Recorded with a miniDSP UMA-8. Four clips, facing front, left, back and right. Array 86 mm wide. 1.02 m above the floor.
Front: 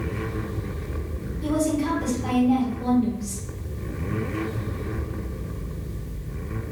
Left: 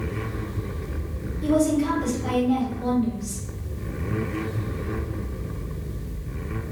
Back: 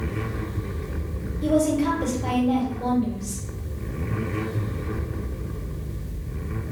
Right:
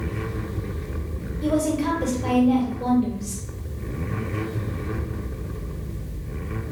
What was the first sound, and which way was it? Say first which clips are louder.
A woman speaking: left 2 dB, back 3 dB; 110° right.